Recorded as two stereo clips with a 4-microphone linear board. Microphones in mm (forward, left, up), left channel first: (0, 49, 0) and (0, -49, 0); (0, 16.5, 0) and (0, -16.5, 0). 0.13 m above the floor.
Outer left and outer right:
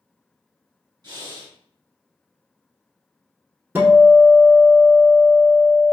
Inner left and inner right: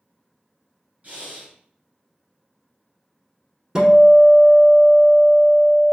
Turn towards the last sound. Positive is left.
turn(degrees=-20)  # may be behind; listen again after turning